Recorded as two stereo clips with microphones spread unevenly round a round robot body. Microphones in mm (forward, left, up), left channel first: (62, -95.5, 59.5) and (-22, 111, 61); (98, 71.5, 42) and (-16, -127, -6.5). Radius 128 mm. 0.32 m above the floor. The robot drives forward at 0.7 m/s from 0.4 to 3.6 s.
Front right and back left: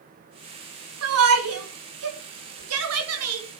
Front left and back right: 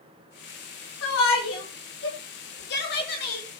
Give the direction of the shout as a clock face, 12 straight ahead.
9 o'clock.